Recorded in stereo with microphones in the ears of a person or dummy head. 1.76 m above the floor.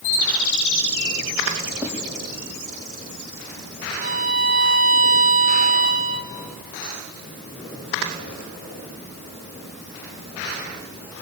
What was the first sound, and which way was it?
Writing, 10° right (ahead or behind).